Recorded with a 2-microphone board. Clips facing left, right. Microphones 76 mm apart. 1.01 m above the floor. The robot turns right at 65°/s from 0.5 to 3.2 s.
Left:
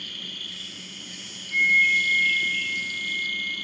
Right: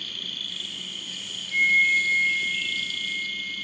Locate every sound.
0.0 s an insect: 130° right, 0.8 m; by 3.6 s 45° left, 0.8 m
1.5 s a flute: 5° right, 4 m; by 3.5 s 105° left, 4 m